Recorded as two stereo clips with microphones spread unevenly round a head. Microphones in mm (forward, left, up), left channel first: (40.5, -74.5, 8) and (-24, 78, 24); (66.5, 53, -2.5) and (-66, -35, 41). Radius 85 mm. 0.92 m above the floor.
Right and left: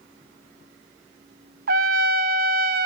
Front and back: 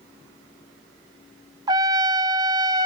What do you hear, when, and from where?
1.7 s a trumpet: 150° left, 0.9 m